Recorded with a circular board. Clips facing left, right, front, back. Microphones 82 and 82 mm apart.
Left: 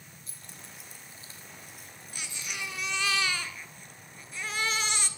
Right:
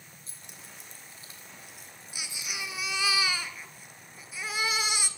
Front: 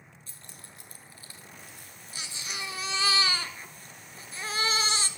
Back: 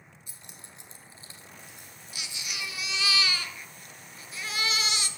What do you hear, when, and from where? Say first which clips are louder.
0.3 s keys jangling: even, even; 115° right, 1.1 m; by 3.1 s 110° left, 3 m
2.1 s a baby crying: even, front 1 dB; 15° right, 0.5 m